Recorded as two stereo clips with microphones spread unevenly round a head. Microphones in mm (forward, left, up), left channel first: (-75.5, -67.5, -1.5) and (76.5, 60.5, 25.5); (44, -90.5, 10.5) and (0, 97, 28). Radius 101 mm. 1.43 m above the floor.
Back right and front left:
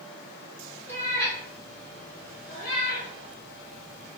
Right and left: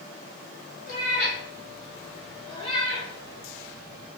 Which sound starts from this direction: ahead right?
A cat meowing, at 0.9 s.